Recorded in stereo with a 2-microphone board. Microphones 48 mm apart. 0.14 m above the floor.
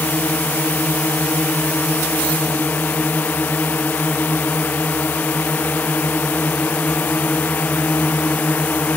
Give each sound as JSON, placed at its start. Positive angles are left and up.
{"t": 0.0, "sound": "a drone", "side_deg": 40}